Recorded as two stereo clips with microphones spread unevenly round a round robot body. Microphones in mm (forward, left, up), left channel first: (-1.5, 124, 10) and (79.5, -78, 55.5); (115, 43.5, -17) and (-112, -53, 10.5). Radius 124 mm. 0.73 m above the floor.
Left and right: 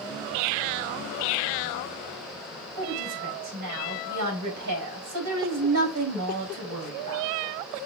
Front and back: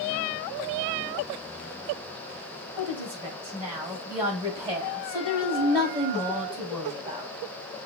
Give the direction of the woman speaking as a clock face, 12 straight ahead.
3 o'clock.